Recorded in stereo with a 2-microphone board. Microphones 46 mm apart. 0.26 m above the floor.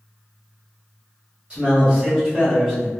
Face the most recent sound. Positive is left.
turn(degrees=-5)  # may be behind; listen again after turning